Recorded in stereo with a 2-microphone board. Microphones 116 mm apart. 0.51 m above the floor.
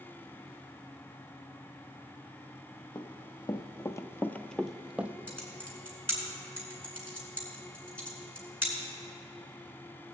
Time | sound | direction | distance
3.0 | running footsteps | 35° left (ahead or behind) | 1.0 m
5.3 | typing on a keyboard | 10° left (ahead or behind) | 3 m